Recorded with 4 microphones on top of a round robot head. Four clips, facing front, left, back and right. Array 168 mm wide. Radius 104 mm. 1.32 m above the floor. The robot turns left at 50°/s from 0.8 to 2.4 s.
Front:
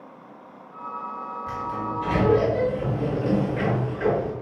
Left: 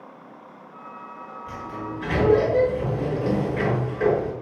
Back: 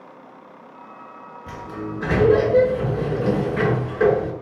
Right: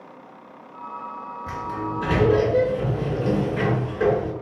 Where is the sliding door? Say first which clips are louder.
Right 4 dB, front 1 dB; 120° right, 6 m; by 4.3 s 165° right, 6 m.